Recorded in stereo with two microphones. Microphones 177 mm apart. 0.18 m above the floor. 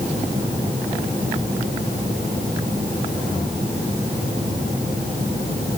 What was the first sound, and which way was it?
Only background noise.